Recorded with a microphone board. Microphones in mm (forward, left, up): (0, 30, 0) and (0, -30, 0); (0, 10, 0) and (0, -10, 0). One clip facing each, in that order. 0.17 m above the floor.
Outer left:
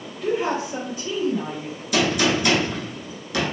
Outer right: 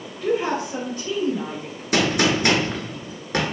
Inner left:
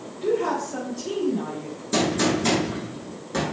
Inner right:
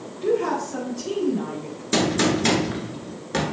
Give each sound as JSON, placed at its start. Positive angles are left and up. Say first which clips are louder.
{"t": 0.2, "sound": "a woman speaking", "louder": "outer right 1 dB, inner right 1 dB", "side_deg": 10, "distance_m": 1.4}
{"t": 1.9, "sound": "a gunshot", "louder": "outer right 1 dB, inner right 1 dB", "side_deg": -45, "distance_m": 0.9}